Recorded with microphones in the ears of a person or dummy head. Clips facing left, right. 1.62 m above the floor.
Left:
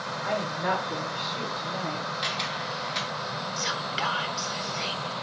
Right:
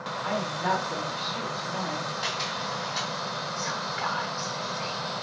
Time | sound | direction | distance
0.2 | a woman speaking | 45° left (ahead or behind) | 2 m
2.2 | a camera shutter | 40° left (ahead or behind) | 1.6 m
3.6 | whispering | 50° left (ahead or behind) | 0.5 m